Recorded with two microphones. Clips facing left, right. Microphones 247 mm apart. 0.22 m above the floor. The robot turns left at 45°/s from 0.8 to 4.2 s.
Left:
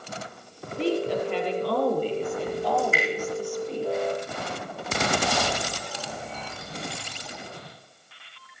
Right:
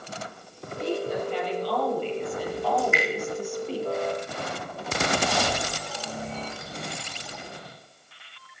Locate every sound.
0.8 s a woman speaking: 100° left, 4.5 m; by 3.8 s 35° right, 4.5 m
2.8 s dripping: 30° left (ahead or behind), 6 m; by 3.0 s 40° left (ahead or behind), 6 m